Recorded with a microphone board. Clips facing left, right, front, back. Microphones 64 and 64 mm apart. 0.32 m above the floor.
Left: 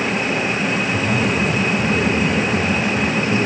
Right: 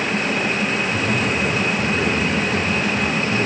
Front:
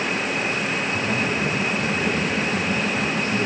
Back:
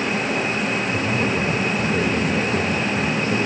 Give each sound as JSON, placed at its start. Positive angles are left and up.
{"t": 0.9, "sound": "a man speaking", "azimuth_deg": 170, "distance_m": 7.5}